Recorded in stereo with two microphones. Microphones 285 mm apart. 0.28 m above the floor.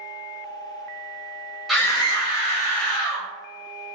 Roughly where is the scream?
Centre.